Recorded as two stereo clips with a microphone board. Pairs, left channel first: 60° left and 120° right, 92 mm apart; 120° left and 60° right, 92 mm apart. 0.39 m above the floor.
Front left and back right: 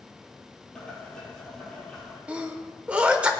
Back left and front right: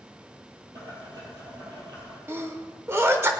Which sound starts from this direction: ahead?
Boiling, at 0.8 s.